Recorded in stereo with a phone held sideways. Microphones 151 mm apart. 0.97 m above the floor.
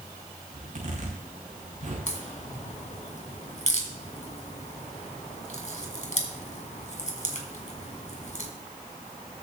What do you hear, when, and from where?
0.5 s a zipper: 55° right (ahead or behind), 5 m
2.1 s a crack: 55° left (ahead or behind), 2 m